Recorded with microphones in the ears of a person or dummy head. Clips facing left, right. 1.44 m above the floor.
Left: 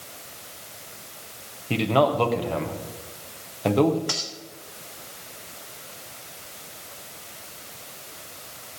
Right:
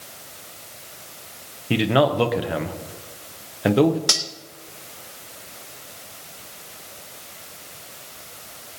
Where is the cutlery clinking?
60° right (ahead or behind), 1.3 m.